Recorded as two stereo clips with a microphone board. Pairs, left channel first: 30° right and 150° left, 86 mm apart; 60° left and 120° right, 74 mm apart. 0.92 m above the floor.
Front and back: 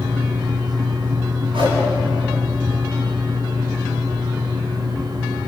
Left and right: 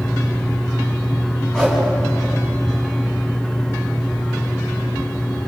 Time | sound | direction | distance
1.5 | a whoosh | 140° left | 8.5 m